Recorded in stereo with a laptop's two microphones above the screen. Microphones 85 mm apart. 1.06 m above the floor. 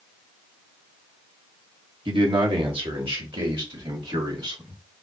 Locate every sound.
2.0 s a man speaking: 65° right (ahead or behind), 1.3 m; by 4.8 s 60° right (ahead or behind), 3 m